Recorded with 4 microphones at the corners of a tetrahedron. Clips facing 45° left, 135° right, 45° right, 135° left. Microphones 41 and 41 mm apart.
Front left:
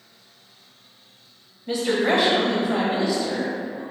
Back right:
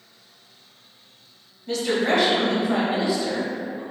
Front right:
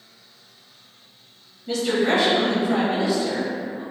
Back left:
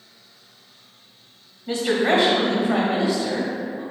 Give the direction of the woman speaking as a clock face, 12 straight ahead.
9 o'clock.